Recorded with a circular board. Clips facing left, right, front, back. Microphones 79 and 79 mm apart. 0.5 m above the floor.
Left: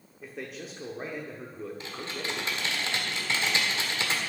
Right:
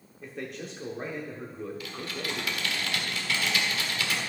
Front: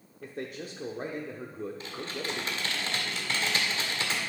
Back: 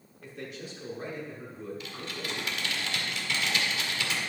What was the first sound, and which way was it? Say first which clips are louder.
A man speaking: right 2 dB, front 3 dB; straight ahead.